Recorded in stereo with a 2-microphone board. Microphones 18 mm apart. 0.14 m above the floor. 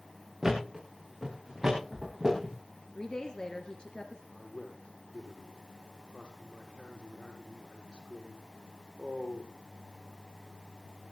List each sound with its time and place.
0.4 s a thud: 30° right (ahead or behind), 8 m
3.0 s a woman speaking: 50° left (ahead or behind), 2 m
4.3 s a man speaking: 75° left (ahead or behind), 6.5 m